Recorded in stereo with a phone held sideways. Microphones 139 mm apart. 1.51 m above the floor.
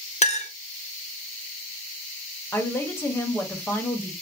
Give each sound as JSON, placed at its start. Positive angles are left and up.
{"t": 0.2, "sound": "a clink", "side_deg": 55, "distance_m": 0.7}
{"t": 2.5, "sound": "a woman speaking", "side_deg": 15, "distance_m": 1.1}